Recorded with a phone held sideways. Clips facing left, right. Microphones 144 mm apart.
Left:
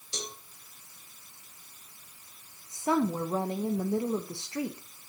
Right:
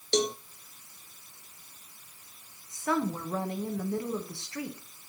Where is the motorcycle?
I don't hear a motorcycle.